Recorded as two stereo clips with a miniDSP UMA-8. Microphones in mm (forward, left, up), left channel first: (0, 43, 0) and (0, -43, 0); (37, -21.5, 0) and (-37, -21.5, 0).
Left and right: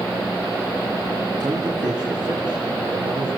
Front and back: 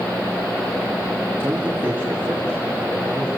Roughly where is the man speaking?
Behind right.